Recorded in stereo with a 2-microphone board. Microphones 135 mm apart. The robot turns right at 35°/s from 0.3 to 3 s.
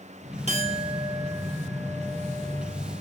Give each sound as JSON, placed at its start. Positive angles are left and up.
{"t": 0.5, "sound": "a clink", "azimuth_deg": -55, "distance_m": 1.3}